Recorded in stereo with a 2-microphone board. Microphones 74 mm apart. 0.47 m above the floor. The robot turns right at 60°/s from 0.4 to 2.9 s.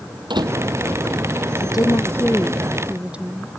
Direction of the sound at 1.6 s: 120° left.